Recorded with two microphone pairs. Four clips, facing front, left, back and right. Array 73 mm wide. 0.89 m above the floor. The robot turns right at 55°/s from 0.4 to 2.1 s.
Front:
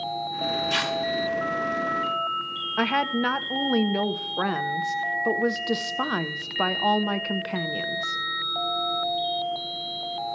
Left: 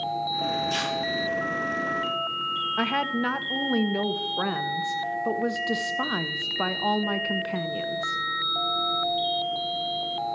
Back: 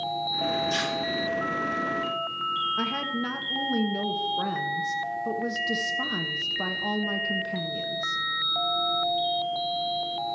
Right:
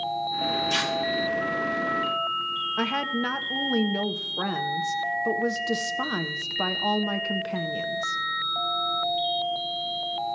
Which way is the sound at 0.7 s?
5° right.